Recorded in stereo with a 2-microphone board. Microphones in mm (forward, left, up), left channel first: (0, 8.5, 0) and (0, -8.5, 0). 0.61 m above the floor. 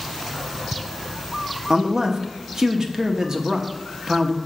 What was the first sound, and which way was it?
A man speaking, 40° right (ahead or behind).